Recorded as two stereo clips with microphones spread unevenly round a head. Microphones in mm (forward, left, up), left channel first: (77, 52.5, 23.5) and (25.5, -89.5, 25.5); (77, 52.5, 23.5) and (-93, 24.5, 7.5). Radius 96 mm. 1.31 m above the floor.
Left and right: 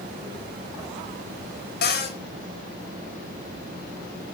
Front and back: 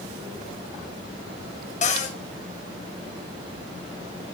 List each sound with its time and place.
1.8 s a cupboard door: 55° left, 5 m